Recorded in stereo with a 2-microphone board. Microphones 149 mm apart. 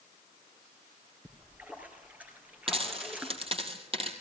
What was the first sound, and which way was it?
A splash, 10° right (ahead or behind).